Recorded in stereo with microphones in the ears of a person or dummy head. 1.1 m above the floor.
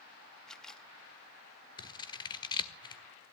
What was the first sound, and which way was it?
A camera shutter, 5° left (ahead or behind).